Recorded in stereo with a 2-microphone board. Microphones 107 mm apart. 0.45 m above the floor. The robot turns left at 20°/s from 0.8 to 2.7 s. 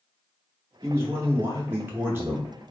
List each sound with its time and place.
0.8 s a man speaking: 25° right (ahead or behind), 0.7 m; by 2.5 s 20° right (ahead or behind), 0.7 m